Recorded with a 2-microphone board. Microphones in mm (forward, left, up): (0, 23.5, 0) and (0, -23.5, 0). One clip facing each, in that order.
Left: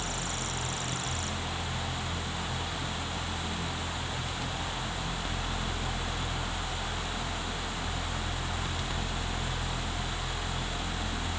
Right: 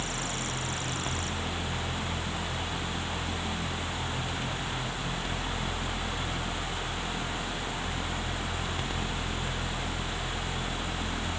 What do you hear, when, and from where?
Only background noise.